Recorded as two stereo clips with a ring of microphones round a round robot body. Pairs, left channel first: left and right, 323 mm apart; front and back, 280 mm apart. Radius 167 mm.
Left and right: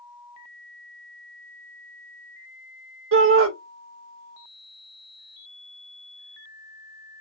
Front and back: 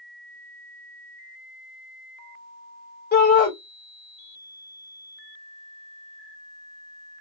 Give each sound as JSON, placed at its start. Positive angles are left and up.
{"t": 3.1, "sound": "a shout", "azimuth_deg": -50, "distance_m": 1.4}